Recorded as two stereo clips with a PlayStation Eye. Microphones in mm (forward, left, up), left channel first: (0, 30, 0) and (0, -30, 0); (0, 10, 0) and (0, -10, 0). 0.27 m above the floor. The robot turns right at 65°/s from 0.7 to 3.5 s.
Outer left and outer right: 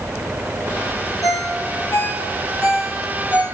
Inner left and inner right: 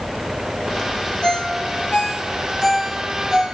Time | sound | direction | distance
1.2 | a ringtone | 65° left (ahead or behind) | 4 m